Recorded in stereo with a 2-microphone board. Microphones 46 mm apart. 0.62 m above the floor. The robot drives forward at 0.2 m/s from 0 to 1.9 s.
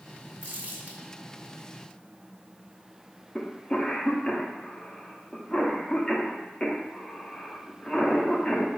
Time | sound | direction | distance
0.4 | crumpling | 40° right (ahead or behind) | 1.2 m
3.4 | a cough | 20° left (ahead or behind) | 0.7 m